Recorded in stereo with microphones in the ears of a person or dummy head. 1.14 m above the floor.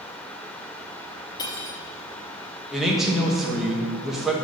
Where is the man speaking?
Centre (ahead or behind), 1.0 m.